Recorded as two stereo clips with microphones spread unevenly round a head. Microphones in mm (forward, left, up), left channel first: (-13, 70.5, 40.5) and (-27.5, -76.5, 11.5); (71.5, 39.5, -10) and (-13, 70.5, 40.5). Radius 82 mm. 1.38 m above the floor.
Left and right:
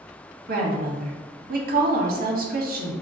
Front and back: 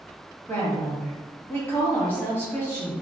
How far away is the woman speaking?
About 0.9 m.